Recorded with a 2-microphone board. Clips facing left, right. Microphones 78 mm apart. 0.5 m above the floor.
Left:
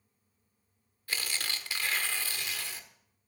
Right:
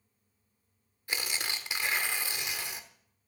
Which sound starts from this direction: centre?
Tearing paper, at 1.1 s.